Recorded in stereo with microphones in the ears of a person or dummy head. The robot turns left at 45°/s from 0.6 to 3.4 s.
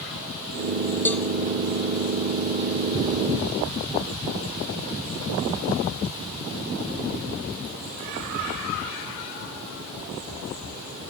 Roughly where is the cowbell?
Centre.